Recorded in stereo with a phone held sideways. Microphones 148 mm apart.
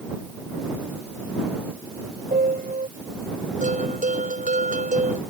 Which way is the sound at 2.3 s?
70° right (ahead or behind).